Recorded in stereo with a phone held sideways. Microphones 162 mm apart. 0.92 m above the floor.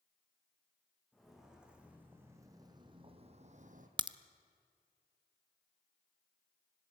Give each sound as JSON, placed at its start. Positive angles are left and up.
{"t": 1.1, "sound": "footsteps", "side_deg": 0, "distance_m": 4.0}
{"t": 4.0, "sound": "a crack", "side_deg": -30, "distance_m": 0.6}